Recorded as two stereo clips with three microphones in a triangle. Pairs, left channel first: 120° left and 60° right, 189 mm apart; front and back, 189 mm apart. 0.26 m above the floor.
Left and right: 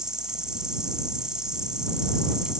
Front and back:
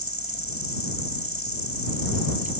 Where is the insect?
145° right.